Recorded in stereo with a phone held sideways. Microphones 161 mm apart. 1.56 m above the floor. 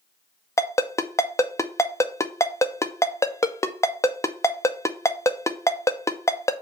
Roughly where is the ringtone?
Centre.